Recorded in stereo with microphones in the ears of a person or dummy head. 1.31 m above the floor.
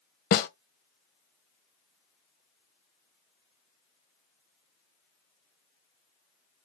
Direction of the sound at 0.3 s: 45° left (ahead or behind).